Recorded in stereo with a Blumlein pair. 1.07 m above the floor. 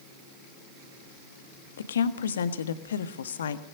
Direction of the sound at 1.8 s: 65° left.